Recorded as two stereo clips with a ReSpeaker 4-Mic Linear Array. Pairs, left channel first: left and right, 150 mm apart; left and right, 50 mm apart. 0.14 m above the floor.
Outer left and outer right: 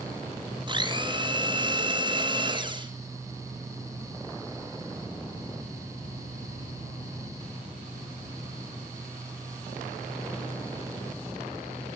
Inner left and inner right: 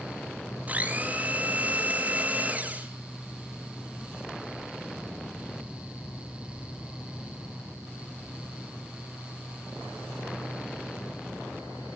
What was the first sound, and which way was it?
A blender, 30° right (ahead or behind).